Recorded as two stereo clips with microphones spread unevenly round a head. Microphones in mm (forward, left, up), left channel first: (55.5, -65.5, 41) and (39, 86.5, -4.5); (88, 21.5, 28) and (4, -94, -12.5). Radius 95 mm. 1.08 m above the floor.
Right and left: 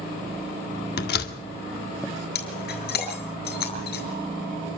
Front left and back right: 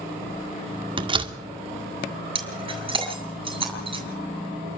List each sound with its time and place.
1.0 s a door slam: 70° right, 1.9 m
2.4 s breaking glass: 70° right, 7.5 m